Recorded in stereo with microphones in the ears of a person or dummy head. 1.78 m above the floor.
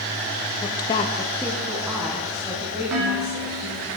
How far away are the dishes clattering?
About 2.5 m.